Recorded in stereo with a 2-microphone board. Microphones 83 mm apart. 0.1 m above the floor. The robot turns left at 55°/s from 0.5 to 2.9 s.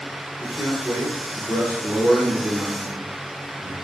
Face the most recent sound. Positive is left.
turn(degrees=15)  # may be behind; listen again after turning